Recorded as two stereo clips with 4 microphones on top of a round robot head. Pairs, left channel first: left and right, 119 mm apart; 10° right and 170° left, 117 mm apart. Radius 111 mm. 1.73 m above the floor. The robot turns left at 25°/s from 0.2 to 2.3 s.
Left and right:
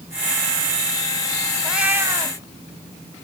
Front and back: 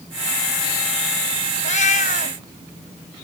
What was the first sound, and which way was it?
A cat meowing, 5° right.